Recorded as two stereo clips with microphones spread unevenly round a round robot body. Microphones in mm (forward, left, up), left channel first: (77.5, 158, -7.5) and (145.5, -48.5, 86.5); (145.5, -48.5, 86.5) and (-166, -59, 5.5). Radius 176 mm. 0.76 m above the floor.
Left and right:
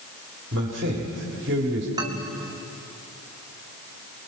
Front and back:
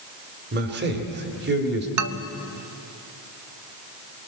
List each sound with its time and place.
0.5 s a man speaking: 130° right, 2.5 m
2.0 s a man speaking: 155° right, 1.1 m